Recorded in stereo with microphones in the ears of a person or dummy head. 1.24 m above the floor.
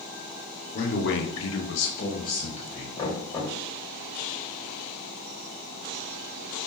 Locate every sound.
0.7 s a man speaking: 45° left (ahead or behind), 0.7 m; by 2.9 s 25° left (ahead or behind), 1.2 m
3.0 s knocking: 20° left (ahead or behind), 1.1 m